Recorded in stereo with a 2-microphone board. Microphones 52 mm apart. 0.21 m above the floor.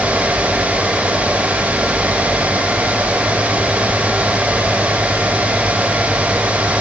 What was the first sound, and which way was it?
Only background noise.